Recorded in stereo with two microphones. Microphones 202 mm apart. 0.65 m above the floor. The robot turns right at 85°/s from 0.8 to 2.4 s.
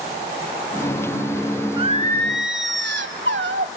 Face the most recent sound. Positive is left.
turn(degrees=-100)